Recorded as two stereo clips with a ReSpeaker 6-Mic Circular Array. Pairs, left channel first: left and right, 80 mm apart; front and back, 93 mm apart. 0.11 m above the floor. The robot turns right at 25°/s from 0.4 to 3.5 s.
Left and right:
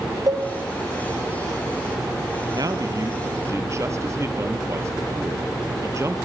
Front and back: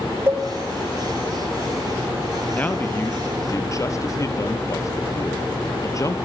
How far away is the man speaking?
About 2.5 m.